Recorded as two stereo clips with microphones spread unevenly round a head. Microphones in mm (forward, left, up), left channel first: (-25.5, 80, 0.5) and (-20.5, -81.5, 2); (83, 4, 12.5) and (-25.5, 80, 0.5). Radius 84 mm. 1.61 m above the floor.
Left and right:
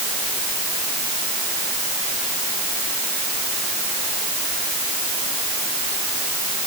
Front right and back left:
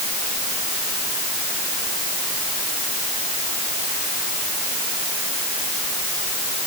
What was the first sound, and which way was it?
Only background noise.